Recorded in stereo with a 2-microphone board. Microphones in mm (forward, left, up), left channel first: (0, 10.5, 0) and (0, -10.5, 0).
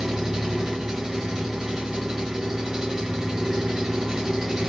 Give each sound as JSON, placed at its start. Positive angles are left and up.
{"t": 0.0, "sound": "an engine running", "side_deg": -20, "distance_m": 1.2}